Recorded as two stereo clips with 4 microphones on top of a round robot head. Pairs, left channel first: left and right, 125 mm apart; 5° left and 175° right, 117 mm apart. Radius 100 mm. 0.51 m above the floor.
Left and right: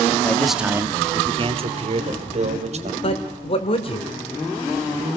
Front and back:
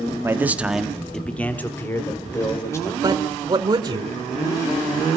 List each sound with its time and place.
0.2 s a man speaking: 145° left, 1.3 m; by 2.9 s 65° right, 3.5 m
3.0 s a man speaking: 130° left, 1.8 m